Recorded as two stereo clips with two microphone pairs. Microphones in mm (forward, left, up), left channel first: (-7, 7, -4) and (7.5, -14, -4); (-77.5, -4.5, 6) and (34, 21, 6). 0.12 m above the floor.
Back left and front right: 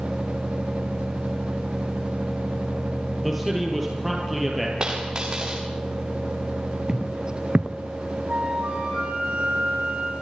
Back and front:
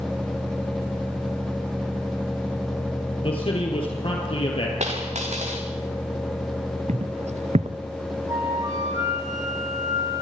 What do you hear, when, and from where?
3.2 s a man speaking: 140° right, 3.5 m
4.8 s a dropped coin: straight ahead, 6.5 m
6.9 s footsteps: straight ahead, 0.9 m
8.3 s a flute: 45° right, 6 m